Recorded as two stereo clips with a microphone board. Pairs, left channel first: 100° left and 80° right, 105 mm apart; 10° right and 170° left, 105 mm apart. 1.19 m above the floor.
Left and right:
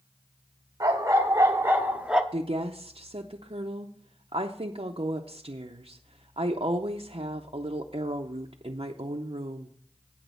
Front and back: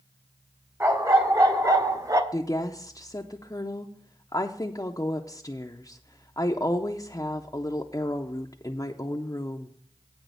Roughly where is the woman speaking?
Ahead right.